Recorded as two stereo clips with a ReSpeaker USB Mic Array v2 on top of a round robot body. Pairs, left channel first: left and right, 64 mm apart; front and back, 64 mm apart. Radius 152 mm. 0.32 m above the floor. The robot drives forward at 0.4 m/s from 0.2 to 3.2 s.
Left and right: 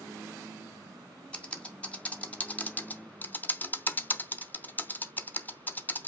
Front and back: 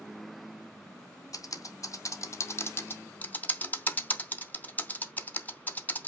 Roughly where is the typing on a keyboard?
Ahead.